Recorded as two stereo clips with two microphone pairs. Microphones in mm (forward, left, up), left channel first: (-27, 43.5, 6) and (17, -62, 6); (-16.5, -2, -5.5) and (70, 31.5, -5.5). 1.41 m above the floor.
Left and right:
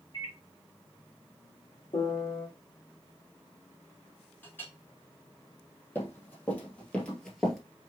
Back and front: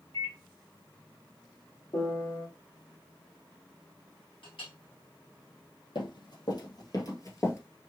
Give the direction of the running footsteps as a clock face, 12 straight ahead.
6 o'clock.